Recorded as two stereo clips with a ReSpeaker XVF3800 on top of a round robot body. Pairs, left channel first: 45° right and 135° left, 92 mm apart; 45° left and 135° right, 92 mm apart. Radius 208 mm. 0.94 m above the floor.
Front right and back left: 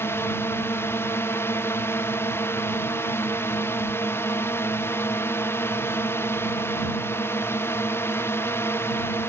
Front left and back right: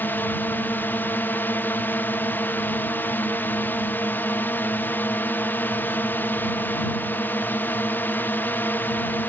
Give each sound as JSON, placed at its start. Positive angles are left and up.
{"t": 0.0, "sound": "a drone", "azimuth_deg": -5}